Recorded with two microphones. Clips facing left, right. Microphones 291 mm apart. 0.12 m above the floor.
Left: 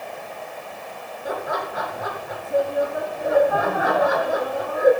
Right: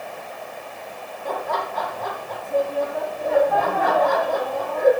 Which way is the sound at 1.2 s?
10° left (ahead or behind).